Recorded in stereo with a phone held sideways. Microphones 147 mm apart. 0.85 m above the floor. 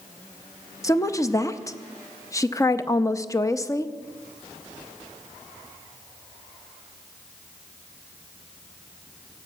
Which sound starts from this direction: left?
A woman speaking, at 0.8 s.